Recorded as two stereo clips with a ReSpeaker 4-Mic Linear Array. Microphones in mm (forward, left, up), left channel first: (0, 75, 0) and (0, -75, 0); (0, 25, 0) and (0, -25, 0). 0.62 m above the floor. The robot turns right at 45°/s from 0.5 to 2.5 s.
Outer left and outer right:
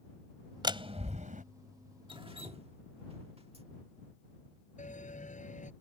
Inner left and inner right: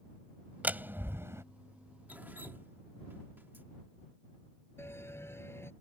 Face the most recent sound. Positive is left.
turn(degrees=60)  # may be behind; listen again after turning